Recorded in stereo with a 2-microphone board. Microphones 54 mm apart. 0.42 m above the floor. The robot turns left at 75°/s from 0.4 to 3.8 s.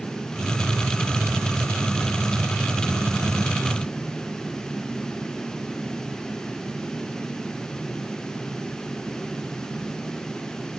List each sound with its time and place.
Only background noise.